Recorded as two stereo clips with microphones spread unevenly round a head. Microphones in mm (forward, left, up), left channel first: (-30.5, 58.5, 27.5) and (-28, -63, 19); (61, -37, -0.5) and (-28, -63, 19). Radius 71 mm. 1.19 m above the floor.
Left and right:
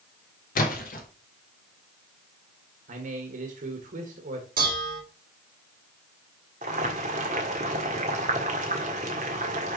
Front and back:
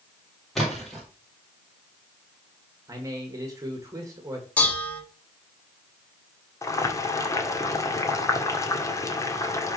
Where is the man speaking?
105° right, 1.4 m.